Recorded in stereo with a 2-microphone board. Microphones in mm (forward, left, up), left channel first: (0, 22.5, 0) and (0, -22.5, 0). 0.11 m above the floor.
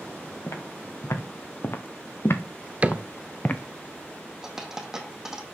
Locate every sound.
0.5 s footsteps: 80° left, 3 m; by 3.6 s 35° left (ahead or behind), 1.0 m
2.8 s a cupboard door: 30° right (ahead or behind), 0.6 m
4.4 s a dropped coin: 10° right (ahead or behind), 2.0 m